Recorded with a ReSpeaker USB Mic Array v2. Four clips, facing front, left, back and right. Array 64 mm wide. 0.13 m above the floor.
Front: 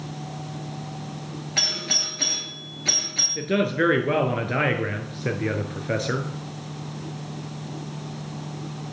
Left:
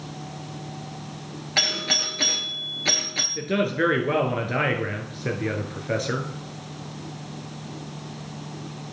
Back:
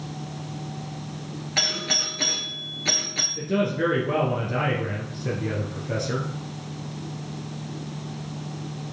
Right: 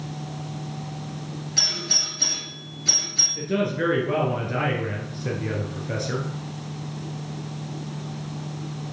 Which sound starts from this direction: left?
A doorbell, at 1.6 s.